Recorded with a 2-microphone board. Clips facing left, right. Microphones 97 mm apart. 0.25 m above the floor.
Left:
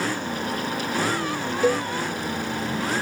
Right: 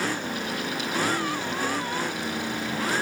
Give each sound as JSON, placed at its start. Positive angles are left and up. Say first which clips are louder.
{"t": 1.6, "sound": "a cowbell", "louder": "left 11 dB", "side_deg": 70}